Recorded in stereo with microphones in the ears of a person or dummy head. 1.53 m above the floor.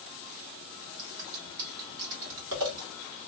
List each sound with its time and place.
1.0 s scissors: 70° right (ahead or behind), 1.7 m